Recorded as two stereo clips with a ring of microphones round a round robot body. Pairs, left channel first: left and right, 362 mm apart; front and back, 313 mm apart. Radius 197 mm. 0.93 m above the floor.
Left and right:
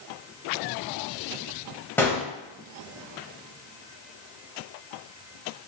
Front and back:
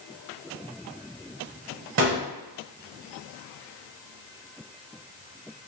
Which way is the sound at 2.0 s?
170° left.